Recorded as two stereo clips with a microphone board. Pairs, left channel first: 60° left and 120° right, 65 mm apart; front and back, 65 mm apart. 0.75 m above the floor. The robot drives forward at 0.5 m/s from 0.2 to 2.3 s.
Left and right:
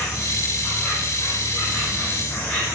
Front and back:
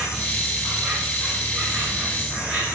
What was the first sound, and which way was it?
An insect, 100° left.